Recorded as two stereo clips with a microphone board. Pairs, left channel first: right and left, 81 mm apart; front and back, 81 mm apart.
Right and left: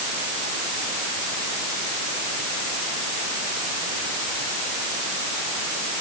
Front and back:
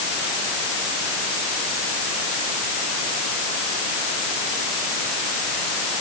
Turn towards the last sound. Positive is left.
No sound to turn to.